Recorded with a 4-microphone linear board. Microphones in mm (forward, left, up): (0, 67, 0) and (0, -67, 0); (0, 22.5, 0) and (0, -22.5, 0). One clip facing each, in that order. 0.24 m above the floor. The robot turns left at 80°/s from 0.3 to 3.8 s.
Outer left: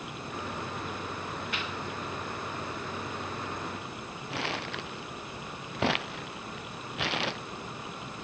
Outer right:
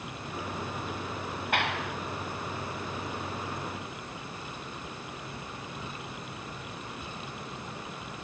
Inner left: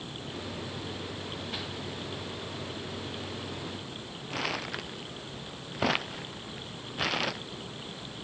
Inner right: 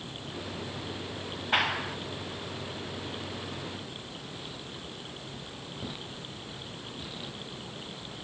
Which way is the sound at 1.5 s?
60° right.